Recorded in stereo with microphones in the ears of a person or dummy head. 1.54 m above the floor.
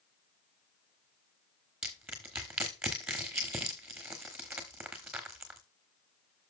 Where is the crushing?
5° right (ahead or behind), 1.2 m.